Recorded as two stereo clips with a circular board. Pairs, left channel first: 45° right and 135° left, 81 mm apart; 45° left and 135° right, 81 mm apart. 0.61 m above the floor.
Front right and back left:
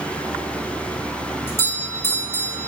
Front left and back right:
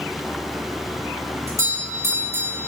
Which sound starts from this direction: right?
A doorbell, at 1.5 s.